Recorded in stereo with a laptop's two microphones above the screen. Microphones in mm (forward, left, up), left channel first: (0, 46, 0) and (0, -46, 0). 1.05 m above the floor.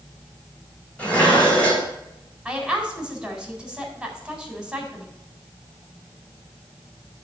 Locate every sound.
1.0 s dishes clattering: 15° left (ahead or behind), 4 m
2.5 s a woman speaking: 5° right (ahead or behind), 4 m